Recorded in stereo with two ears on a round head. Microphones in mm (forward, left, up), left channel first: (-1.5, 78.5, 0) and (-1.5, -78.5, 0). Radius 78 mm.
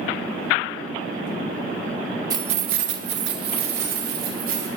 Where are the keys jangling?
20° right (ahead or behind), 0.7 m; by 4.7 s 55° right (ahead or behind), 3 m.